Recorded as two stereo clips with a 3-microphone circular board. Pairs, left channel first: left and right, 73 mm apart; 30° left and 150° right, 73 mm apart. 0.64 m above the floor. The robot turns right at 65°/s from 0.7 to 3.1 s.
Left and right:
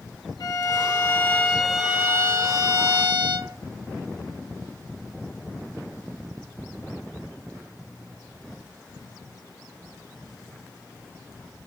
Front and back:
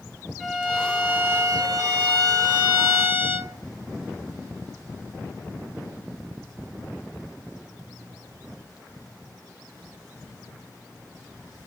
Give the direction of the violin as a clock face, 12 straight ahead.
8 o'clock.